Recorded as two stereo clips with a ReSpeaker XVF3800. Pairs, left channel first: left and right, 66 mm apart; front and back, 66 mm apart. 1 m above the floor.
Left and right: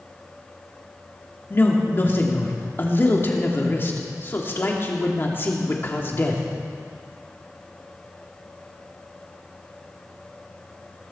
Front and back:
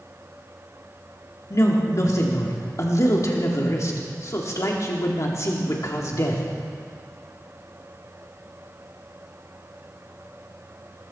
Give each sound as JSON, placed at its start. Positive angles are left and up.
{"t": 1.5, "sound": "a woman speaking", "azimuth_deg": 35, "distance_m": 2.5}